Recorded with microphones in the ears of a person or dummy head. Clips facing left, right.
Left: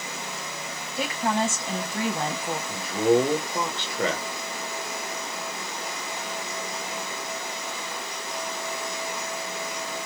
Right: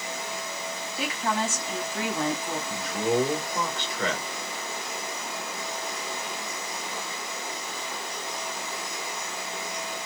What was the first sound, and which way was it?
A woman speaking, 45° left (ahead or behind).